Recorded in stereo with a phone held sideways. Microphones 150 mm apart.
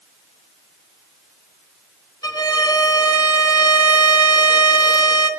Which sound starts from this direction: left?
A violin, at 2.2 s.